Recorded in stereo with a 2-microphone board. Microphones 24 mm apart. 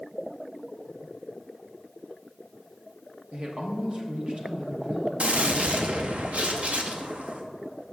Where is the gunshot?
70° right (ahead or behind), 0.6 m.